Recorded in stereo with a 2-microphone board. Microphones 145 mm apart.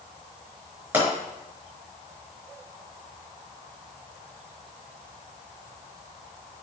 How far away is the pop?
About 5 m.